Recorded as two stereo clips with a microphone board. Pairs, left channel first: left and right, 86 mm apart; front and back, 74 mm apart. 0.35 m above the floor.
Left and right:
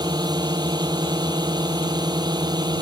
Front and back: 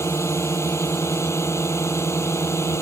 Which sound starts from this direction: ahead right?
A drone, at 0.0 s.